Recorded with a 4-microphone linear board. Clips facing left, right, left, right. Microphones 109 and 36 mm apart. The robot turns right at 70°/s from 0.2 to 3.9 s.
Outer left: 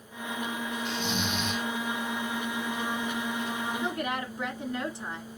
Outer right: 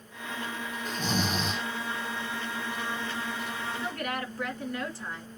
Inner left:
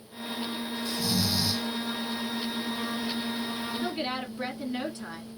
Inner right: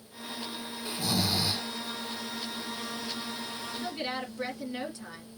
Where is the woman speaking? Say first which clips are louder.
Outer left 2 dB, inner left 1 dB; 20° left (ahead or behind), 1.5 m.